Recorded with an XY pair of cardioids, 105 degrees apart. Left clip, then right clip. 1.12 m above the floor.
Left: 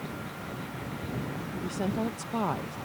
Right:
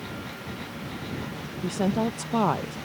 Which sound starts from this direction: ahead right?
A woman speaking, at 1.6 s.